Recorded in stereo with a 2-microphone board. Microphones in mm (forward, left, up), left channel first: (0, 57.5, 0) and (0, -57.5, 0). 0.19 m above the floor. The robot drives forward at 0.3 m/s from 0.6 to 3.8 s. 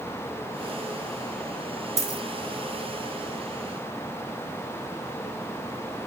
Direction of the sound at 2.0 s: 25° right (ahead or behind).